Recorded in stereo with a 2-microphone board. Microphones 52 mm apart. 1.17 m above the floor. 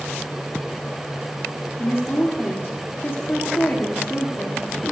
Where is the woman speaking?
55° left (ahead or behind), 2.5 m.